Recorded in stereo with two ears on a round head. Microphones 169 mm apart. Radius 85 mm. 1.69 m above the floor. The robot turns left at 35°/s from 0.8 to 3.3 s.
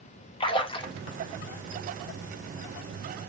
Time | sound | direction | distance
0.4 | a splash | 25° left (ahead or behind) | 0.6 m